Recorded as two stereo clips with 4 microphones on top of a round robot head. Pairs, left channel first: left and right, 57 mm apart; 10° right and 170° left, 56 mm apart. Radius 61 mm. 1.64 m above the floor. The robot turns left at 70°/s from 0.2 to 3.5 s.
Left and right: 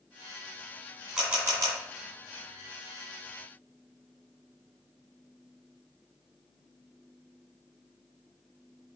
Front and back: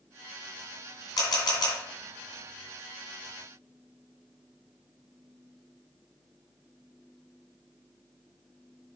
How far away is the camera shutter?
About 2.5 m.